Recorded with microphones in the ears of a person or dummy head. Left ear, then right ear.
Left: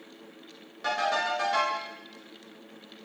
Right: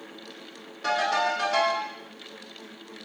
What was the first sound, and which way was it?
A ringtone, 10° left (ahead or behind).